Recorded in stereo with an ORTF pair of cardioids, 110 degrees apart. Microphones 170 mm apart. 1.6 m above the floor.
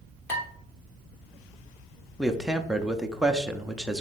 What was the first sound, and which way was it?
Dishes clattering, 15° left.